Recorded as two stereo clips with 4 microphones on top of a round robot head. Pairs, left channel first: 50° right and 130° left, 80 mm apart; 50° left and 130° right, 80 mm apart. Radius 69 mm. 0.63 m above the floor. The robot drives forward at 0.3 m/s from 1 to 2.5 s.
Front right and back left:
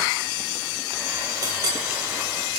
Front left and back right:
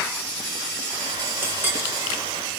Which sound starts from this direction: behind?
A clink, at 1.4 s.